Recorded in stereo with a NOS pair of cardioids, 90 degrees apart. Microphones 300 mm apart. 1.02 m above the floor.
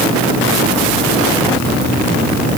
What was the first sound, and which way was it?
Only background noise.